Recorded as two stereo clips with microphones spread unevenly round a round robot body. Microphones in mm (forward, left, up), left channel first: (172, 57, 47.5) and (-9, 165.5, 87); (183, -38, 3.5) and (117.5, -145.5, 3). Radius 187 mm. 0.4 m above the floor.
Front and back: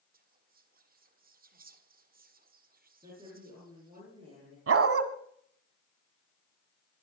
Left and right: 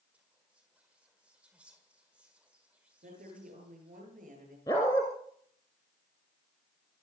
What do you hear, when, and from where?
0.1 s whispering: 165° left, 1.5 m
3.0 s a woman speaking: 135° right, 9 m
4.7 s a dog barking: 135° left, 1.4 m